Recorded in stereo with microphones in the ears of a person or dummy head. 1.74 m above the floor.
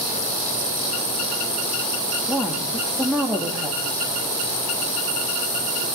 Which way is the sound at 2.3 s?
5° right (ahead or behind).